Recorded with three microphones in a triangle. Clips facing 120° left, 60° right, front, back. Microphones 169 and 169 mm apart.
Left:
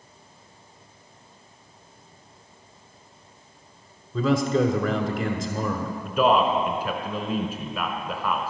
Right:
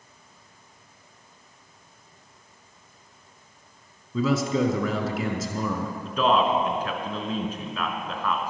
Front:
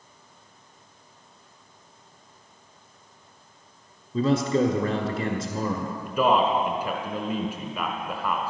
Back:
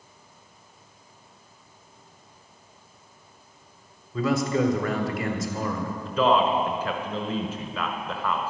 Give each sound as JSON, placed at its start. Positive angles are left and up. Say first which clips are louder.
{"t": 4.1, "sound": "a man speaking", "louder": "left 2 dB, front 2 dB", "azimuth_deg": 20, "distance_m": 1.3}
{"t": 6.0, "sound": "a man speaking", "louder": "left 2 dB, even", "azimuth_deg": 55, "distance_m": 1.1}